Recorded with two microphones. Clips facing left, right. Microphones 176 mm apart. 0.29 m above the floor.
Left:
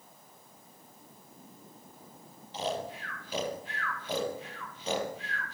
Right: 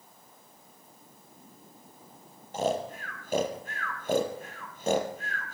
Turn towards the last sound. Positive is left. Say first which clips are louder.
# right 5 dB
turn(degrees=-50)  # may be behind; listen again after turning